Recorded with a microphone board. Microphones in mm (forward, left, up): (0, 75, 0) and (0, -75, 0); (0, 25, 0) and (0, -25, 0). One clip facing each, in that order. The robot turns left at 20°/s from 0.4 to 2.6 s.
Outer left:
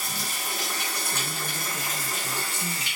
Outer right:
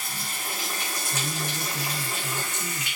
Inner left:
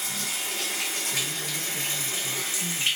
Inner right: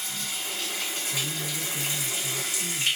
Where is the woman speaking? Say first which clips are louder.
Outer right 2 dB, even; 5° right (ahead or behind), 1.2 m; by 3.0 s 15° right (ahead or behind), 1.2 m.